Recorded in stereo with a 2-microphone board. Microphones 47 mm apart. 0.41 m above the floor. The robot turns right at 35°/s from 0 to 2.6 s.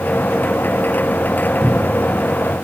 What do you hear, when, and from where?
1.6 s a cupboard door: 5° left (ahead or behind), 0.7 m; by 2.1 s 20° left (ahead or behind), 0.7 m